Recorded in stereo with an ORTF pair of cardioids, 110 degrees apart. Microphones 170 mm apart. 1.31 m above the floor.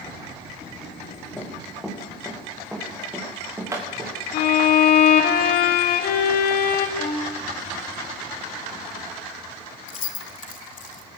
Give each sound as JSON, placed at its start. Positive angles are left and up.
{"t": 1.4, "sound": "running footsteps", "azimuth_deg": 10, "distance_m": 8.0}
{"t": 4.3, "sound": "a violin", "azimuth_deg": 65, "distance_m": 2.0}
{"t": 7.0, "sound": "a violin", "azimuth_deg": 45, "distance_m": 5.5}
{"t": 9.9, "sound": "keys jangling", "azimuth_deg": 50, "distance_m": 2.5}